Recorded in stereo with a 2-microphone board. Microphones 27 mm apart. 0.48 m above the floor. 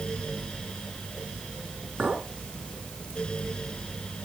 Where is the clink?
40° right (ahead or behind), 3.5 m.